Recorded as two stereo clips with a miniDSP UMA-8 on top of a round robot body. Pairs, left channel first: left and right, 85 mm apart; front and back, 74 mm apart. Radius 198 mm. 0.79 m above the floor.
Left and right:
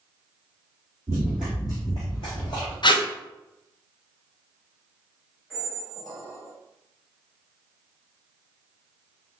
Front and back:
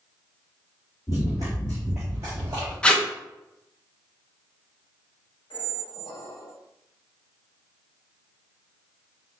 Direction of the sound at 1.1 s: 30° right.